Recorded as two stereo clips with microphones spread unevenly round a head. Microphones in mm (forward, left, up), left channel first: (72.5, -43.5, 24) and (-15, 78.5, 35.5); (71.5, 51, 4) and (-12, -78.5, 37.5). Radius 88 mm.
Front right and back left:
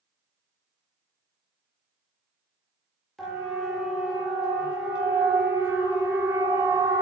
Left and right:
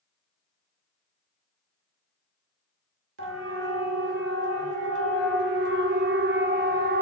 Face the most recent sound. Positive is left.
turn(degrees=-165)